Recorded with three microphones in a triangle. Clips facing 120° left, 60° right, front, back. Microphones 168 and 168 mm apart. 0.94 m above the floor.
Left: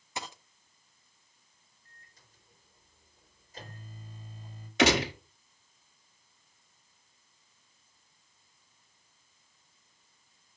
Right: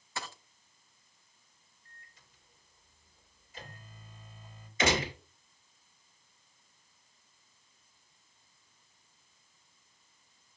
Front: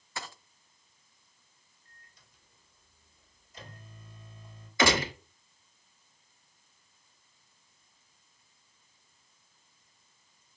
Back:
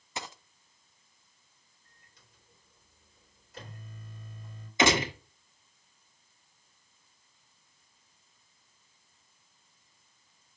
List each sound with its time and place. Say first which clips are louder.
0.2 s a dropped coin: left 2 dB, back 2 dB; 155° left, 0.6 m
1.9 s a microwave: right 1 dB, front 1 dB; 170° left, 3 m
4.8 s a gunshot: left 5 dB, back 1 dB; 110° left, 1.3 m